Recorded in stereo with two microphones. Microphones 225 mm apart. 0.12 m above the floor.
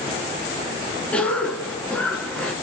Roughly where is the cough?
Centre.